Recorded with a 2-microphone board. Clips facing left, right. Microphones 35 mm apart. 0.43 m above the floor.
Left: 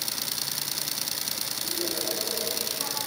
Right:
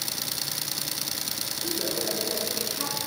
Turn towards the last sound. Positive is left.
turn(degrees=-35)  # may be behind; listen again after turning